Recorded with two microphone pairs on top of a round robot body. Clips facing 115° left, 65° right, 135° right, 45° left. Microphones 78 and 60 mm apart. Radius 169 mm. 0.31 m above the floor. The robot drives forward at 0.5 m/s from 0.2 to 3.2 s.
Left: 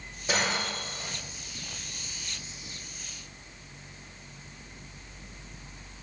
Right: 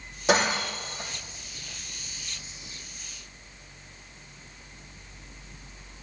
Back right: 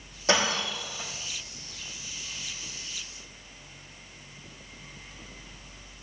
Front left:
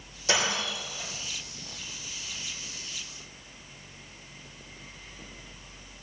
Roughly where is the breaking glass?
Right.